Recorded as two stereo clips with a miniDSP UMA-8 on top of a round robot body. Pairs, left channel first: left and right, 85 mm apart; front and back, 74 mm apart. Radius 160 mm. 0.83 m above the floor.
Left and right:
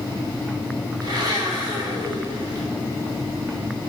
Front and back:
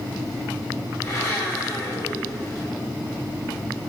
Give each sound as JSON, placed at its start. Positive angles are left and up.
{"t": 1.0, "sound": "a blender", "azimuth_deg": -55, "distance_m": 3.5}